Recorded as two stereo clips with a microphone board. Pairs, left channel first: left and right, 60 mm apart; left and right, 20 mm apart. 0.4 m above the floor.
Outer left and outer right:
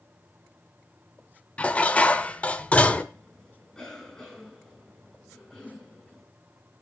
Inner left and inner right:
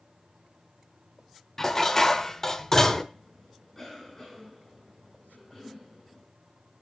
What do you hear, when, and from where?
1.6 s dishes clattering: 25° left (ahead or behind), 0.8 m
3.1 s a cough: 15° left (ahead or behind), 6.5 m